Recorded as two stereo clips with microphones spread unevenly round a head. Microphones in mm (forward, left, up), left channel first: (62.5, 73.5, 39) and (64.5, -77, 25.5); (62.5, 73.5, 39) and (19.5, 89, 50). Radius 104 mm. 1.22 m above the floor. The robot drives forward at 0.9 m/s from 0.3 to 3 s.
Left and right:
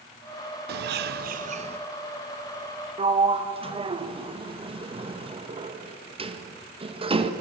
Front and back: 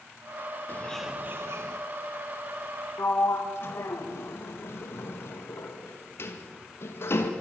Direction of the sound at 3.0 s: 40° right.